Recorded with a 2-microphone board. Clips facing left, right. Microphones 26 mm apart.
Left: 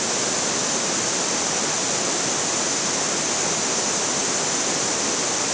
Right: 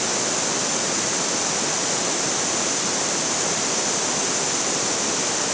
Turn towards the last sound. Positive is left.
No sound to turn to.